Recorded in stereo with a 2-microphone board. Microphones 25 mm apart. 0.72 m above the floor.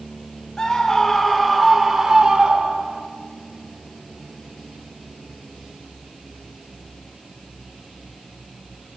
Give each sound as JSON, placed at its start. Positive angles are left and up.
{"t": 0.6, "sound": "a scream", "side_deg": 20, "distance_m": 2.5}